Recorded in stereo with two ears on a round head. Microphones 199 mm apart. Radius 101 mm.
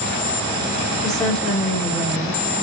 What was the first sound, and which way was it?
A woman speaking, 5° left (ahead or behind).